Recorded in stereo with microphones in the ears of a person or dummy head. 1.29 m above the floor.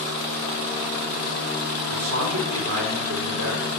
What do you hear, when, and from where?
1.9 s a man speaking: 80° right, 3 m